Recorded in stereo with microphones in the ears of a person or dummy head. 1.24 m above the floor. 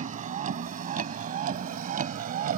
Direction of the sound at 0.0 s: 45° right (ahead or behind).